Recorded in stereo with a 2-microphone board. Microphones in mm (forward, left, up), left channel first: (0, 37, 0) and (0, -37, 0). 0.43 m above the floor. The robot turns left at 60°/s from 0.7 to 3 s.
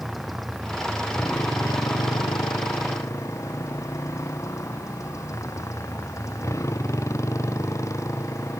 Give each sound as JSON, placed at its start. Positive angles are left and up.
{"t": 0.0, "sound": "a motorcycle", "azimuth_deg": 180}